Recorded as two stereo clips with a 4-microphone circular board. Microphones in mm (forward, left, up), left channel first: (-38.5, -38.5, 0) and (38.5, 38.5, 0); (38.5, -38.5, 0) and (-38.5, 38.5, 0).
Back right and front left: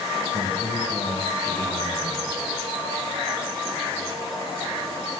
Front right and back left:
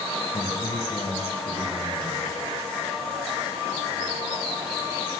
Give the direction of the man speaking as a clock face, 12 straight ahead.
12 o'clock.